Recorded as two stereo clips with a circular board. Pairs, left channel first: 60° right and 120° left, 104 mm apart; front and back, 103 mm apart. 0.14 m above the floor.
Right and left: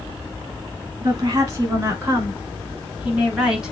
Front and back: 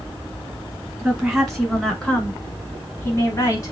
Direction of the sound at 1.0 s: 100° left.